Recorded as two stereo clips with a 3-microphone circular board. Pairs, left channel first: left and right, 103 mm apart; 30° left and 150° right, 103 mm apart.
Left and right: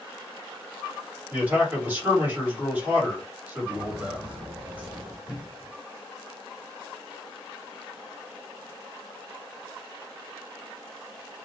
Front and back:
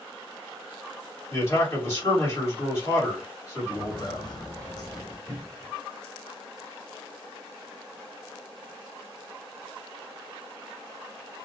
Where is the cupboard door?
115° right, 1.1 m.